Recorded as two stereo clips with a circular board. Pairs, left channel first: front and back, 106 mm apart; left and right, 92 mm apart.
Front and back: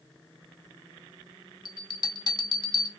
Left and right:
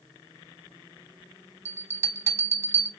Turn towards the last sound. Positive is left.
turn(degrees=-35)